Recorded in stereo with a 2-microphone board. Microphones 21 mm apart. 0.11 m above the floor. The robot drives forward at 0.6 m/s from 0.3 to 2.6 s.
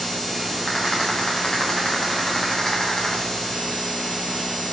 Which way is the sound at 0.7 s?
40° left (ahead or behind).